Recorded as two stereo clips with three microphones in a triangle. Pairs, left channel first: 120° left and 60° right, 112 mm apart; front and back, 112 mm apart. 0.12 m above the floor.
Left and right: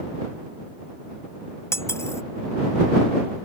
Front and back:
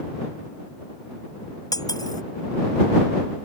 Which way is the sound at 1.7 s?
55° left.